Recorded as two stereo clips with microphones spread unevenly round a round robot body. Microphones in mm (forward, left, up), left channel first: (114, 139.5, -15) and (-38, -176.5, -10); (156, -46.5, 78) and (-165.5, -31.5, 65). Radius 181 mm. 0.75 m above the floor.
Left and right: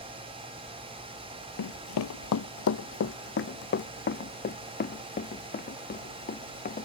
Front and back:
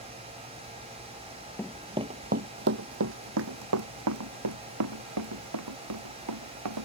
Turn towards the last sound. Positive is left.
turn(degrees=135)